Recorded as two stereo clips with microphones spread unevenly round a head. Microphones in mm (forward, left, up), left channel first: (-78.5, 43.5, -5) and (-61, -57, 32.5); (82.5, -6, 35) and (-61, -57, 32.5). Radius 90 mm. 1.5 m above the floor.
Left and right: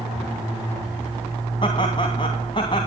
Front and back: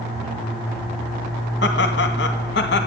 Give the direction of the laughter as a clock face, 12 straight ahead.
11 o'clock.